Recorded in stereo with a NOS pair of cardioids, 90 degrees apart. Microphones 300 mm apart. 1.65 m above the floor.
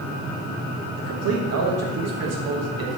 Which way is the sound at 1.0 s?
60° right.